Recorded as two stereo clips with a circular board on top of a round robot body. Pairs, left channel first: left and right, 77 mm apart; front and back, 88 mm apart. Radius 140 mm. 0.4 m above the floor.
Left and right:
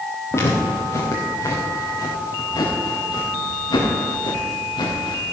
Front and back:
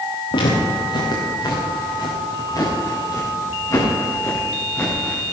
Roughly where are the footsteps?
Ahead left.